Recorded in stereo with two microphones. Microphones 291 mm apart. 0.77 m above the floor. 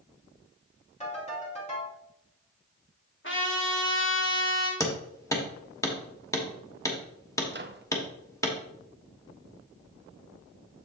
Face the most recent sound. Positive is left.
turn(degrees=-35)  # may be behind; listen again after turning